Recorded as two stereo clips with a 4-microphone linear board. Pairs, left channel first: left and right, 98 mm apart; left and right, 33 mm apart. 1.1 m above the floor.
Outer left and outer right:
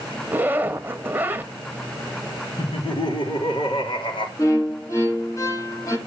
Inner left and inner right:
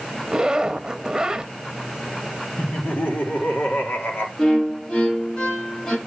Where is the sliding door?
No sliding door in this recording.